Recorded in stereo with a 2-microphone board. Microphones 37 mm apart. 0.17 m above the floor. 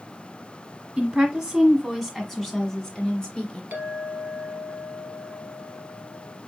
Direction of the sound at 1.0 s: 20° right (ahead or behind).